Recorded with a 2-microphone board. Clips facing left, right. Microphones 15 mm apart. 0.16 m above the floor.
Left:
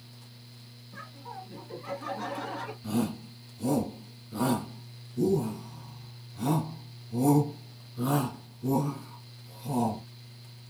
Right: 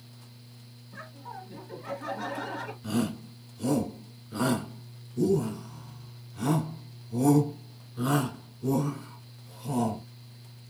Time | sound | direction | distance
0.9 | laughter | 10° left (ahead or behind) | 1.6 m
2.8 | a shout | 20° right (ahead or behind) | 1.3 m